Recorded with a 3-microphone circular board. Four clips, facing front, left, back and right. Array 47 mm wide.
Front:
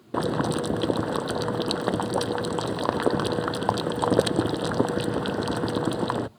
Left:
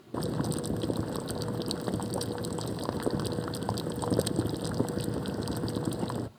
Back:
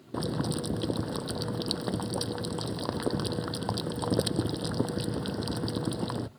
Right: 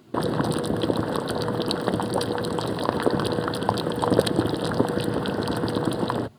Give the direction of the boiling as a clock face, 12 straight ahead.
1 o'clock.